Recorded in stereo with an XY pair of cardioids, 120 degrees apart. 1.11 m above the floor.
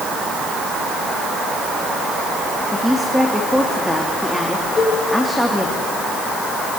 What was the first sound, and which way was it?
A woman speaking, 5° left.